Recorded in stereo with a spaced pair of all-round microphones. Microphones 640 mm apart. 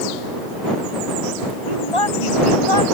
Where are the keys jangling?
No keys jangling in this recording.